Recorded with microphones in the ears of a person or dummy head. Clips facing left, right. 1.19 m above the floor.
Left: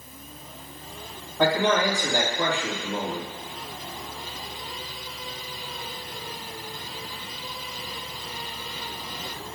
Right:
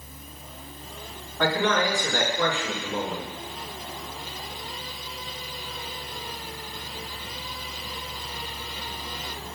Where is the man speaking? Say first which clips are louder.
Left 2 dB; 15° left (ahead or behind), 2.5 m.